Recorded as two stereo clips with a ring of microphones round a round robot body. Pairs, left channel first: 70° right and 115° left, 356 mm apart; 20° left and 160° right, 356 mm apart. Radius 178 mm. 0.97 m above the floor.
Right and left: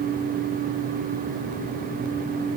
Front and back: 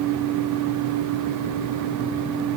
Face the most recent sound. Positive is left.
No sound to turn to.